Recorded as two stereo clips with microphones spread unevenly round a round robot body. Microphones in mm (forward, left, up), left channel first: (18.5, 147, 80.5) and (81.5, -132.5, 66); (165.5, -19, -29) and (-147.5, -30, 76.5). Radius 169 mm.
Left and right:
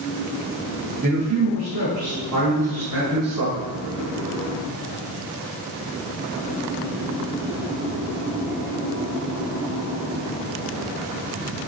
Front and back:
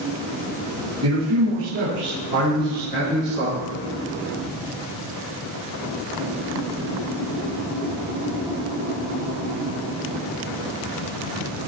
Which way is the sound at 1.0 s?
130° right.